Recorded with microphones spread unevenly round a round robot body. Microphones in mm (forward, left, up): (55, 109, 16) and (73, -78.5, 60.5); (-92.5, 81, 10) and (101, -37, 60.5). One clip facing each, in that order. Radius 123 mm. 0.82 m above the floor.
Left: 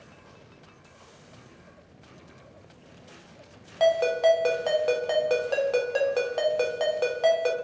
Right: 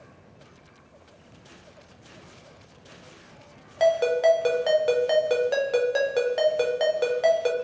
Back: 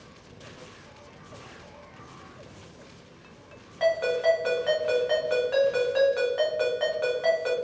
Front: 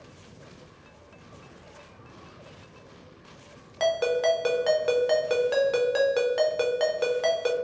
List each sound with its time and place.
3.8 s a ringtone: straight ahead, 0.6 m